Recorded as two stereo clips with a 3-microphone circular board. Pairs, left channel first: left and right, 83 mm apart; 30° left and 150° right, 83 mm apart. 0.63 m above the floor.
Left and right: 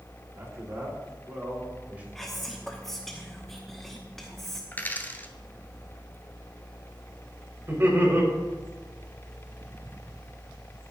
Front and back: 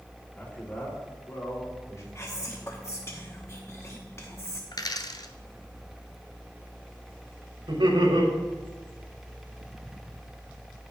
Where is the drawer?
No drawer in this recording.